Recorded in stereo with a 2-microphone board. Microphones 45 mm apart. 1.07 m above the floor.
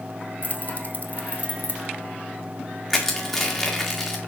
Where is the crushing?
5° left (ahead or behind), 1.5 m.